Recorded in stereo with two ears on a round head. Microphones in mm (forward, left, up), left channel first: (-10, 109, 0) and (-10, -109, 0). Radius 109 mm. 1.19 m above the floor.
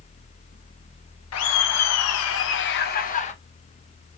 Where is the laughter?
70° left (ahead or behind), 1.1 m; by 3.3 s 30° left (ahead or behind), 1.1 m.